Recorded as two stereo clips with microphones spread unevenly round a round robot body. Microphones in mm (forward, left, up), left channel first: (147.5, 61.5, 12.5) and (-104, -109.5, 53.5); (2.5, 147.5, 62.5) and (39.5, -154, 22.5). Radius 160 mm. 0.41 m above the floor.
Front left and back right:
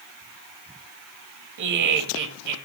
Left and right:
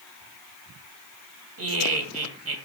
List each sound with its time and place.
1.6 s laughter: 115° right, 2 m